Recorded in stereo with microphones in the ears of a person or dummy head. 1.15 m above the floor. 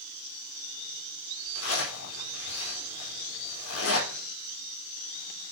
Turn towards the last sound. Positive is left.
turn(degrees=80)